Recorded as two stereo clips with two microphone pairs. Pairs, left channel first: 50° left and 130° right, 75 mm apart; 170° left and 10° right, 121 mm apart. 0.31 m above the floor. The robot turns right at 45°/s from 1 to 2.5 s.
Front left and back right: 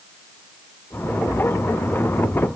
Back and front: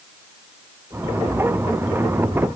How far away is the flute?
I don't hear a flute.